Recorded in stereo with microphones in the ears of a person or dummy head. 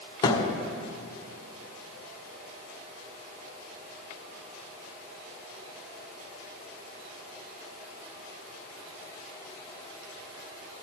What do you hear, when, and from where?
0.2 s a thud: 35° left (ahead or behind), 2 m